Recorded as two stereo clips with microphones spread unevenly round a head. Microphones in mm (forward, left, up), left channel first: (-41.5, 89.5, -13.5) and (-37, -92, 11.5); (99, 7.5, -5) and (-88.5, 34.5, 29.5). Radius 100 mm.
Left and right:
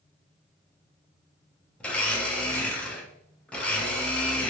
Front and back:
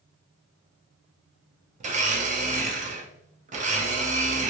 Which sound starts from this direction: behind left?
A blender, at 1.8 s.